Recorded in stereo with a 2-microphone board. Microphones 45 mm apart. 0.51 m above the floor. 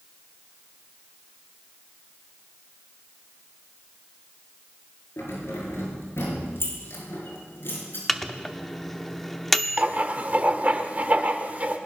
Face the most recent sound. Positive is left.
turn(degrees=-35)  # may be behind; listen again after turning